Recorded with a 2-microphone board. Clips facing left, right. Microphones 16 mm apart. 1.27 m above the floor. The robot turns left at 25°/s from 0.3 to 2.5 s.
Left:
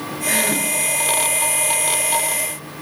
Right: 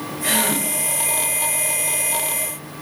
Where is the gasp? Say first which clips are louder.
Left 1 dB; 55° right (ahead or behind), 4.5 m; by 0.7 s 65° right (ahead or behind), 4.5 m.